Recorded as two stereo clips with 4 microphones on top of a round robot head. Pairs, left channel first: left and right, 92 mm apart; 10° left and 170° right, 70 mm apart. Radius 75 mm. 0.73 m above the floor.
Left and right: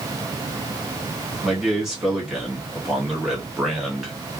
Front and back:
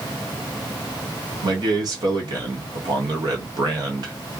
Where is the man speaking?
175° right, 2.0 m.